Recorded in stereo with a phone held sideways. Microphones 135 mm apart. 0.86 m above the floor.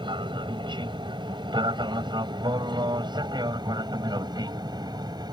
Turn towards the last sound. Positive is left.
turn(degrees=-30)  # may be behind; listen again after turning